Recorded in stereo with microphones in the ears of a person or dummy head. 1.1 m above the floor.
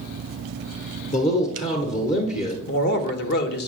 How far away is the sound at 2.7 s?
About 1.1 m.